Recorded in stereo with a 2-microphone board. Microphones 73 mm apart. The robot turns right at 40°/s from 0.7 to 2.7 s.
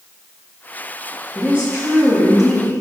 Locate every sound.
1.4 s a woman speaking: 60° right, 1.0 m; by 2.7 s 5° right, 1.0 m